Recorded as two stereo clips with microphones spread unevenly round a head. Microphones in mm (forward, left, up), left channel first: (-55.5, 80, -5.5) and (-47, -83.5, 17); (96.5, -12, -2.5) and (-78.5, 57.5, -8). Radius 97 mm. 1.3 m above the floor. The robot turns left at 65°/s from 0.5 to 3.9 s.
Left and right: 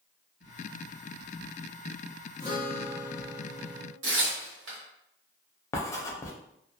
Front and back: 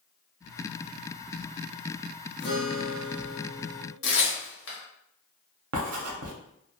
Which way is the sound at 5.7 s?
170° left.